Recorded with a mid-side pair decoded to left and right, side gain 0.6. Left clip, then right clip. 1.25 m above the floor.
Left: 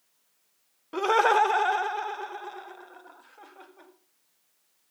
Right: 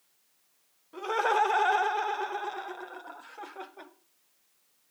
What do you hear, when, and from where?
0.9 s laughter: 60° left, 0.6 m; by 3.9 s 30° right, 2.5 m